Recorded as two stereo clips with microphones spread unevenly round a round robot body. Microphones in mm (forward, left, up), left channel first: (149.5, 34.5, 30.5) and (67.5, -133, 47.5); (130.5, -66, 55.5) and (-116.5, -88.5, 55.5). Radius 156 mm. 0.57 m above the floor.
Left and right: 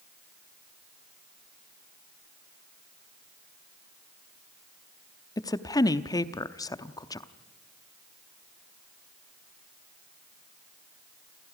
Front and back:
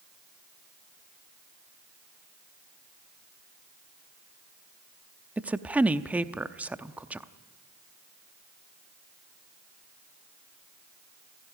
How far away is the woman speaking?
About 0.7 m.